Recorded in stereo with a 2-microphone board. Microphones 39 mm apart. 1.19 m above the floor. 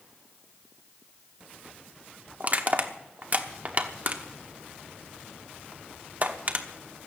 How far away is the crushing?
About 1.0 m.